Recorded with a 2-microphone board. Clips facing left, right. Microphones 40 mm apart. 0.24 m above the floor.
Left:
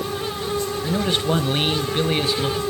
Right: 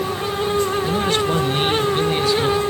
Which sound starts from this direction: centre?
A man speaking, at 0.8 s.